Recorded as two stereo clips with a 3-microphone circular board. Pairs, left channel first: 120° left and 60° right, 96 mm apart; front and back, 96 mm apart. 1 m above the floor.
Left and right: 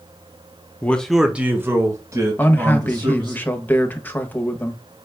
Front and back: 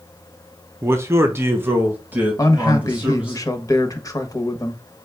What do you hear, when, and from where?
0.8 s a man speaking: 165° left, 0.6 m; by 3.4 s 105° right, 1.9 m
2.4 s a man speaking: 50° left, 0.8 m